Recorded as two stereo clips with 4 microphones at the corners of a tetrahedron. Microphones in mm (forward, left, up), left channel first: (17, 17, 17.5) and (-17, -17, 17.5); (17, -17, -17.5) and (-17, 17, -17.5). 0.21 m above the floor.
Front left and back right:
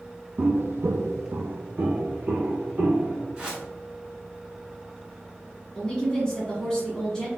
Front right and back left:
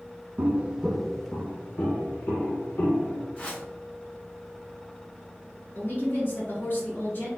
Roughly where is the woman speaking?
Ahead right.